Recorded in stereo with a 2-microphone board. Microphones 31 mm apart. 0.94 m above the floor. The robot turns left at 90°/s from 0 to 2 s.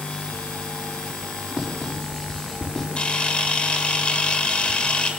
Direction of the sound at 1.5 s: 25° right (ahead or behind).